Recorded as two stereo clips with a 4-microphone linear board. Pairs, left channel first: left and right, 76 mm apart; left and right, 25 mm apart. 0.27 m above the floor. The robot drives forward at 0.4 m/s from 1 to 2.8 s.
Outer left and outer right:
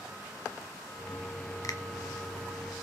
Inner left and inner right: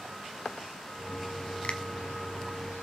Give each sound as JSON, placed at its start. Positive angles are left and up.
{"t": 1.6, "sound": "a finger snap", "side_deg": 50, "distance_m": 1.4}